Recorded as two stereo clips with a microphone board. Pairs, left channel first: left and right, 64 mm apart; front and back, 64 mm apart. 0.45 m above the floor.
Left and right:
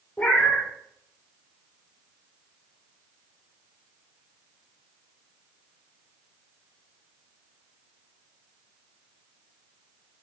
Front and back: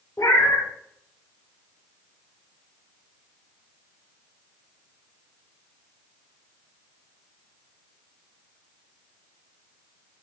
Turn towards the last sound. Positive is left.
turn(degrees=25)